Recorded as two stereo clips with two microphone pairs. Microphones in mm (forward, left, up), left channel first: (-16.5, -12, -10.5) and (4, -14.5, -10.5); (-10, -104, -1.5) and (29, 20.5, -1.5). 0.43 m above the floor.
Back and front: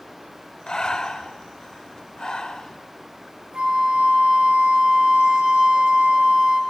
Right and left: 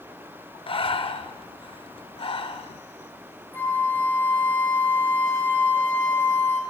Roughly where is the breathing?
Behind right.